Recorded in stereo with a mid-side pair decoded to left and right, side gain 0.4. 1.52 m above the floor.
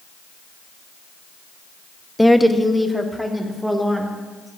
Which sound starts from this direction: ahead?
A woman speaking, at 2.2 s.